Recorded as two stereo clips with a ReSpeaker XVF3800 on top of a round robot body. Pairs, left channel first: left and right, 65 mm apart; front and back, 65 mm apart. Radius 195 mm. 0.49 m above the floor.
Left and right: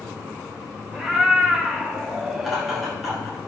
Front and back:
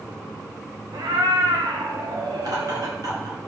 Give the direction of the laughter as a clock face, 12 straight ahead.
6 o'clock.